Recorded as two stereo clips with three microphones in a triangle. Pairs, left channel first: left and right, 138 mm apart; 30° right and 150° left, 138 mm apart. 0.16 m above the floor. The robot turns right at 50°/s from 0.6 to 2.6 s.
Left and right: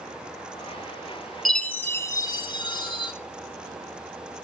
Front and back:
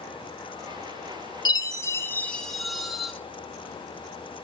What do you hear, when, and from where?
1.4 s a chime: 5° left, 0.6 m; by 3.1 s 60° left, 0.6 m